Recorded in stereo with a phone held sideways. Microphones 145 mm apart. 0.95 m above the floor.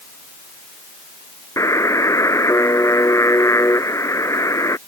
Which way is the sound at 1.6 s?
20° left (ahead or behind).